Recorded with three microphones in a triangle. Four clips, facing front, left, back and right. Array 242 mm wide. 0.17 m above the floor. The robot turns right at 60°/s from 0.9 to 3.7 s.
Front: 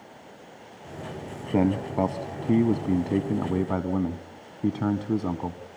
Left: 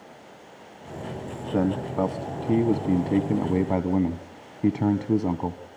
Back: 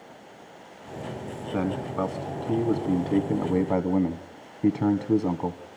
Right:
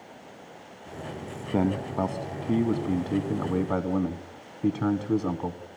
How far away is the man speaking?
About 1.1 m.